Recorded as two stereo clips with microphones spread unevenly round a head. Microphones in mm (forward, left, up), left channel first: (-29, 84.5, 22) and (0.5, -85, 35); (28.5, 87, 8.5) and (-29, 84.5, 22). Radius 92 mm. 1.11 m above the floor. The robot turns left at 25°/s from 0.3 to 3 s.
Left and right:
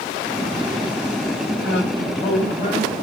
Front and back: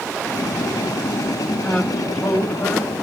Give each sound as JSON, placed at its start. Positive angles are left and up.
{"t": 1.6, "sound": "a man speaking", "azimuth_deg": 75, "distance_m": 6.0}